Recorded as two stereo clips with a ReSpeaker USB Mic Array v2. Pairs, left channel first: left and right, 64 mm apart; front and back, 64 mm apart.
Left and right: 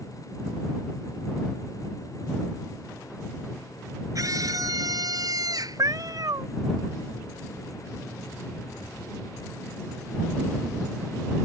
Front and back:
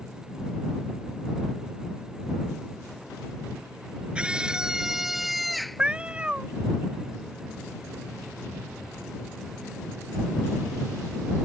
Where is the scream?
110° right; by 5.8 s 90° right.